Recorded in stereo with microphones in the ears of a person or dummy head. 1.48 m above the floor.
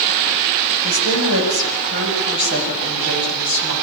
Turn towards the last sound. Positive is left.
turn(degrees=-60)  # may be behind; listen again after turning